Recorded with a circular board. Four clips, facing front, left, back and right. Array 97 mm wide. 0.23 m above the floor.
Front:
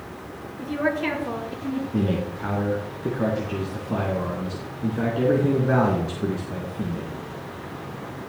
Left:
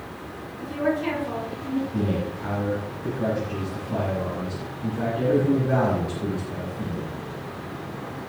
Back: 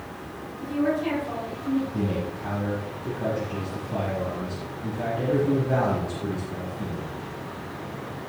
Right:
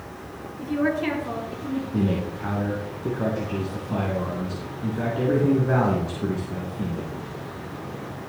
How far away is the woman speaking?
About 4.5 m.